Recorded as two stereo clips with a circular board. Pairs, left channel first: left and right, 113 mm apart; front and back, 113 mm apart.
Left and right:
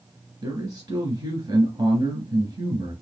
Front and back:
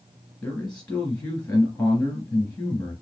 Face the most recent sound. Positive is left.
turn(degrees=-80)